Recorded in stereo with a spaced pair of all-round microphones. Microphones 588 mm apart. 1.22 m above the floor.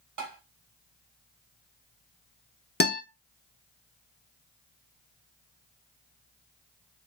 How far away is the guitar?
About 0.6 m.